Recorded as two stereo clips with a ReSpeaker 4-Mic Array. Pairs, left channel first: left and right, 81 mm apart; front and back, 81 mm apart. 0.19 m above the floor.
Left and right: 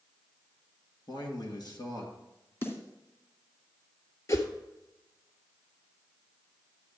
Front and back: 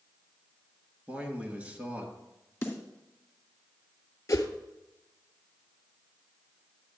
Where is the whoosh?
45° left, 1.1 m.